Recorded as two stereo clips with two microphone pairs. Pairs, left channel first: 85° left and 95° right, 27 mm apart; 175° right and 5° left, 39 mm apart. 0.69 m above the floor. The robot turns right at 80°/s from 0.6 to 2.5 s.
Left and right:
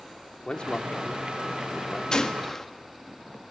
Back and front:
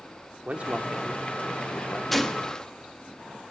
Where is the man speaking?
45° left, 1.8 m; by 2.0 s 160° left, 1.8 m.